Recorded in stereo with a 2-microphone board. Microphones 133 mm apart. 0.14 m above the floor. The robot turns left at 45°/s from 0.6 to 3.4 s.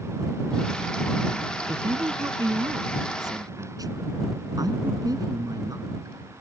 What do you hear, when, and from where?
1.7 s a woman speaking: 35° right; by 6.1 s 115° right